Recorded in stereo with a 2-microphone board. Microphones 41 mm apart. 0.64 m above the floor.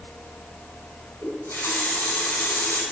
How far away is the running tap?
About 3 m.